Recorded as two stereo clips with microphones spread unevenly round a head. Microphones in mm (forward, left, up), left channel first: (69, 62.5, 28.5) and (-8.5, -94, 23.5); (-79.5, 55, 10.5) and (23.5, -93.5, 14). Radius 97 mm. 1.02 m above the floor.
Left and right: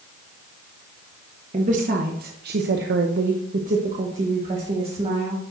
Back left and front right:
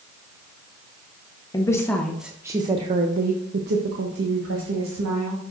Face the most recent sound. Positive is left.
turn(degrees=-55)